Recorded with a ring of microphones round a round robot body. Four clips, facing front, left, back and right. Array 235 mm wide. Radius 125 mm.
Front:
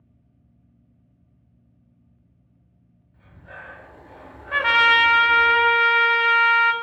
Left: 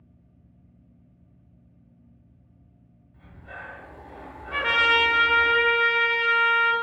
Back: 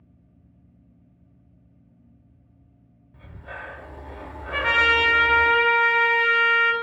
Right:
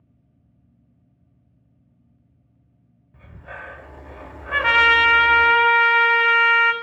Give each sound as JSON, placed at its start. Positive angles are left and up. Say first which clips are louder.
{"t": 3.1, "sound": "breathing", "louder": "right 4 dB, back 4 dB", "azimuth_deg": -125, "distance_m": 0.8}
{"t": 4.5, "sound": "a trumpet", "louder": "right 5 dB, front 3 dB", "azimuth_deg": -60, "distance_m": 0.5}